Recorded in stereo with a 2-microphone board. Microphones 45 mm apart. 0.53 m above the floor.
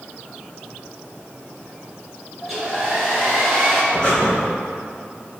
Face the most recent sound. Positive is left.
turn(degrees=15)  # may be behind; listen again after turning